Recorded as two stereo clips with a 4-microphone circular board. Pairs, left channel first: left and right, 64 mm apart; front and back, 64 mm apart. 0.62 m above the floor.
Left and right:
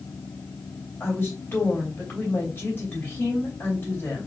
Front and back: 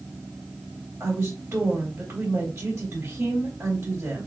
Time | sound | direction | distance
1.0 | a woman speaking | 140° left | 2.5 m